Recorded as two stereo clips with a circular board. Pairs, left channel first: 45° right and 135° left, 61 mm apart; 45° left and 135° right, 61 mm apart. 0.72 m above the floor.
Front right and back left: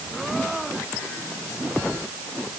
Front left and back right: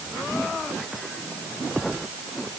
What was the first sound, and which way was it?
Only background noise.